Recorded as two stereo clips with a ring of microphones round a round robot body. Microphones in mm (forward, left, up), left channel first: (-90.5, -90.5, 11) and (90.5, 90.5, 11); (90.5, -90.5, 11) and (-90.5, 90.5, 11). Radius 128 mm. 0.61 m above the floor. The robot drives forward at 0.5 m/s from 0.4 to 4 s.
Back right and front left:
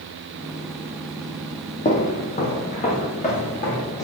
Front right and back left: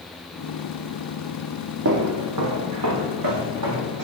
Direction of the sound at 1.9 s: 165° left.